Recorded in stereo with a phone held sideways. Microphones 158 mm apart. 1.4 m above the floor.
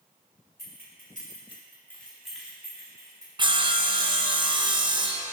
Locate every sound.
0.6 s keys jangling: 75° left (ahead or behind), 1.9 m; by 3.3 s 20° right (ahead or behind), 3.5 m
3.4 s sawing: 30° right (ahead or behind), 0.6 m